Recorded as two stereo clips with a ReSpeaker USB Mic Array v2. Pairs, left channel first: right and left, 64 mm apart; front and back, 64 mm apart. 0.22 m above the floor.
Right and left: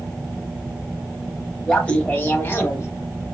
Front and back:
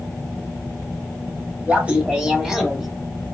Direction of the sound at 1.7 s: 150° right.